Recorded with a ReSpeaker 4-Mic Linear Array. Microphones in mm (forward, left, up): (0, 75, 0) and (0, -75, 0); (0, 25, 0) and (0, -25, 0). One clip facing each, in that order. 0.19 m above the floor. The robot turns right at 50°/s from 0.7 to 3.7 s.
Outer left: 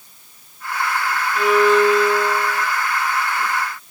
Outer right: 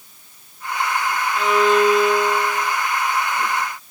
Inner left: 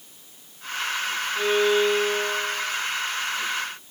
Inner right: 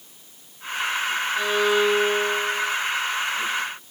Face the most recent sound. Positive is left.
turn(degrees=-75)